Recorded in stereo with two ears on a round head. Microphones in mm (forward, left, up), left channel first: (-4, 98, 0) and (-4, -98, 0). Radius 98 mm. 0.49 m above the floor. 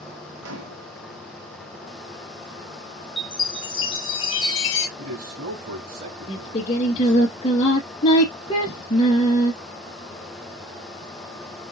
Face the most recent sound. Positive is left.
turn(degrees=25)  # may be behind; listen again after turning